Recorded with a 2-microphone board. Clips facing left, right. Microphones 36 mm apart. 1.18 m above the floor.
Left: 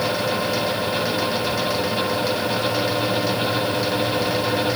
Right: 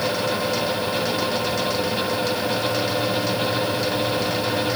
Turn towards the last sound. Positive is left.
No sound to turn to.